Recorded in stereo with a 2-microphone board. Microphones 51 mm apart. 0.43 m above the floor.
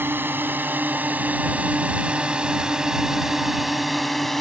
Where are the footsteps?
I don't hear footsteps.